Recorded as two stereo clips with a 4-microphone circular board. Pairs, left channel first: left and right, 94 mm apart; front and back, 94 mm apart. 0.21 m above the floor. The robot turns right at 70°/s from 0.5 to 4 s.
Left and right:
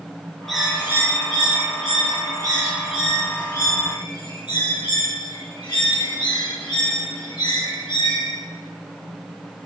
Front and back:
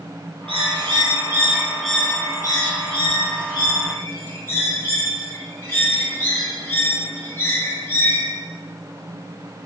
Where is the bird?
175° left, 3 m; by 8.4 s 60° left, 3 m.